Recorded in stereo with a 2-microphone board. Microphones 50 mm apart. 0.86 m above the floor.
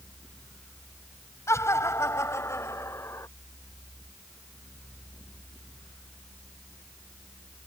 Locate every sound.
1.5 s laughter: 70° left (ahead or behind); by 3.3 s 75° left (ahead or behind)